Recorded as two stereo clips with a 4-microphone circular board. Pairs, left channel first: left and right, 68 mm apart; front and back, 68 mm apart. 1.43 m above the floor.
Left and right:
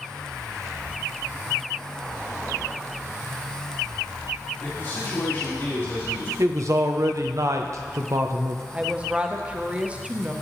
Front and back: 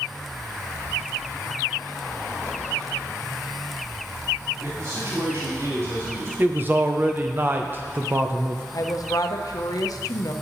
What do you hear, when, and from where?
4.6 s a man speaking: 140° left, 3.5 m
6.4 s a man speaking: 125° right, 0.7 m
8.7 s a woman speaking: 20° right, 0.9 m